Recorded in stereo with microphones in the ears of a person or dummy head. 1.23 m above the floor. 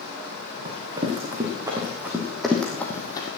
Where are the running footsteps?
20° right (ahead or behind), 4.5 m; by 3.3 s 30° left (ahead or behind), 2 m.